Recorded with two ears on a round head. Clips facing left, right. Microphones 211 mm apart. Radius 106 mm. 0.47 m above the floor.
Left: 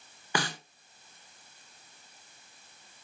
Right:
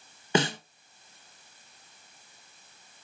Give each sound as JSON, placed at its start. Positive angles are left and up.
{"t": 0.3, "sound": "a snare drum", "side_deg": -20, "distance_m": 1.1}